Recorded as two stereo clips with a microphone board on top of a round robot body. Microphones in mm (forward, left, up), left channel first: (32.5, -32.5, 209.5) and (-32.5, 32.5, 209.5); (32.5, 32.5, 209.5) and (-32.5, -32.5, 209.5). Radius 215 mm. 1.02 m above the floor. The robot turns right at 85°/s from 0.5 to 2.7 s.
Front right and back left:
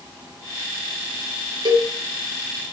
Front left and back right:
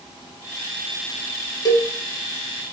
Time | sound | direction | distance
1.6 | a cowbell | 95° left | 0.8 m